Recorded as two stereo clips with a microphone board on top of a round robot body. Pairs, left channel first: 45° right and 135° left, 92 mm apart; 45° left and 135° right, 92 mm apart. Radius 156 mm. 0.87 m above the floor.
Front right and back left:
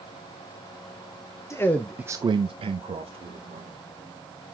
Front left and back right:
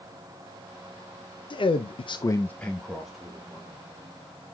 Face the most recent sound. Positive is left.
turn(degrees=145)